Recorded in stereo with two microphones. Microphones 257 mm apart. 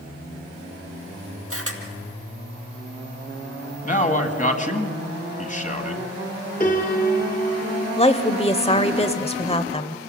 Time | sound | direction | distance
1.5 | a camera shutter | 60° right (ahead or behind) | 2 m
3.8 | a man speaking | 30° left (ahead or behind) | 1.8 m
6.6 | a piano | 35° left (ahead or behind) | 2.5 m
8.0 | a woman speaking | 25° left (ahead or behind) | 0.9 m